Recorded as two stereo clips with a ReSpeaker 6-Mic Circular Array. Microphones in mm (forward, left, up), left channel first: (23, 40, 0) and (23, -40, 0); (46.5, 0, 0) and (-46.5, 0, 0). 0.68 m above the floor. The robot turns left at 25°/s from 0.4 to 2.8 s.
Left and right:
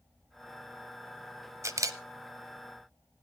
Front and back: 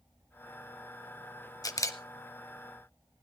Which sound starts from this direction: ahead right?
A camera shutter, at 1.6 s.